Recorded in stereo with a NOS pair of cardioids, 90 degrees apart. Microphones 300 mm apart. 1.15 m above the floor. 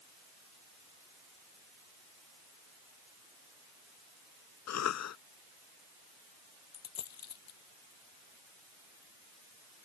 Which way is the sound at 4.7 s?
65° left.